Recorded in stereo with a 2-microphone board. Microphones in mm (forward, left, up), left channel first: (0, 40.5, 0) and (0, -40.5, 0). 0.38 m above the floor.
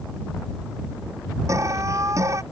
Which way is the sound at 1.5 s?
40° right (ahead or behind).